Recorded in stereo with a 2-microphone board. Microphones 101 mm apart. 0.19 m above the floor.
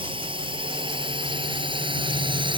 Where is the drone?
65° right (ahead or behind); by 2.6 s 60° right (ahead or behind).